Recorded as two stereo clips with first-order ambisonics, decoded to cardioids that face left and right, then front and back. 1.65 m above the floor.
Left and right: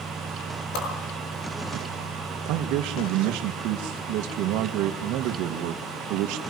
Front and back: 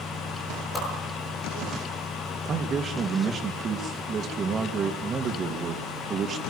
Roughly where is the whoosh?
Left.